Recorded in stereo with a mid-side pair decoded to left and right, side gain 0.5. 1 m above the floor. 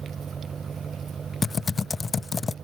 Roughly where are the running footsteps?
No running footsteps in this recording.